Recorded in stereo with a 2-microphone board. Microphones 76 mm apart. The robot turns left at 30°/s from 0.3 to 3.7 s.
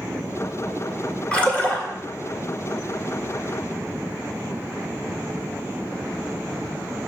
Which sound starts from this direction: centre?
A splash, at 1.3 s.